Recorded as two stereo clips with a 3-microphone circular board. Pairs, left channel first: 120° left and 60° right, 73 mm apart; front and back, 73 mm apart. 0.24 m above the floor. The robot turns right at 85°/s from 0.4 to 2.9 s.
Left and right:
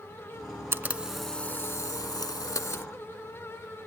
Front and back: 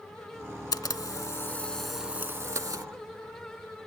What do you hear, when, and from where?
0.7 s a camera shutter: 10° right; by 2.9 s 170° left